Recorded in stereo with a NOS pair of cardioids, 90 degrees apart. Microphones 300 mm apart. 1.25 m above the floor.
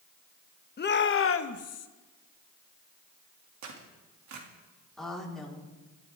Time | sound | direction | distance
0.8 | a shout | 35° left | 1.3 m
3.6 | tearing paper | 65° right | 2.5 m
5.0 | a woman speaking | straight ahead | 4 m